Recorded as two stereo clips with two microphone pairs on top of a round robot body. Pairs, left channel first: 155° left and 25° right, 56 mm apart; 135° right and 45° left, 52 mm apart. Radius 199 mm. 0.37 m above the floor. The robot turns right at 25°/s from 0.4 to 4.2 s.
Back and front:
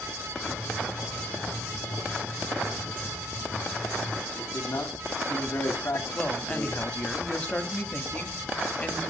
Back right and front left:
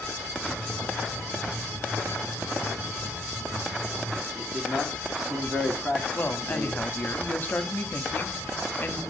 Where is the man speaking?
120° left, 2 m.